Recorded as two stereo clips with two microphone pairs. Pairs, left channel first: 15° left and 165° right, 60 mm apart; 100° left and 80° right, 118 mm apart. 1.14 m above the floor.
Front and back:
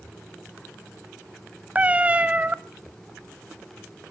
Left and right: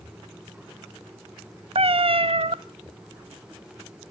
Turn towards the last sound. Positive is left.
turn(degrees=-105)